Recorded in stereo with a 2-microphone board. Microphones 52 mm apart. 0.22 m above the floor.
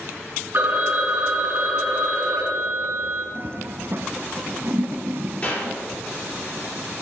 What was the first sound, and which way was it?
A phone ringing, 40° right (ahead or behind).